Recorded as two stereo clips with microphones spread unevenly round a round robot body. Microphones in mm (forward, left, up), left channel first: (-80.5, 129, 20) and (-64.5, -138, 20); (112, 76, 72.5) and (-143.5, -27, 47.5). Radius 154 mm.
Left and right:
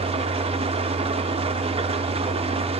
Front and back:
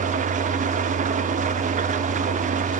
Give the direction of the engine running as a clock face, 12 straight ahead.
5 o'clock.